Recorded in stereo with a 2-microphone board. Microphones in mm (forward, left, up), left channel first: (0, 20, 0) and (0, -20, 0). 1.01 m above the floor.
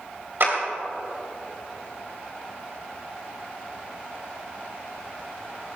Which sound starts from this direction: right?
A clap, at 0.4 s.